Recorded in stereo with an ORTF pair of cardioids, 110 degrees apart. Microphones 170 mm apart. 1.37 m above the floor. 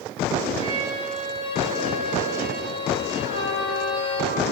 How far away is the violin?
About 7.5 m.